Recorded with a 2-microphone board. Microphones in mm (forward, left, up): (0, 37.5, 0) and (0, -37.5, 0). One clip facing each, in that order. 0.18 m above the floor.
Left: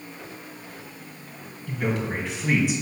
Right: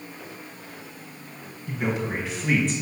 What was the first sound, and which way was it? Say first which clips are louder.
A man speaking: even; 20° right (ahead or behind).